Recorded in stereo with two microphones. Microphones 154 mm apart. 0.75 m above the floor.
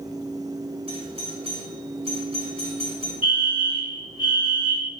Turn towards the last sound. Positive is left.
turn(degrees=35)  # may be behind; listen again after turning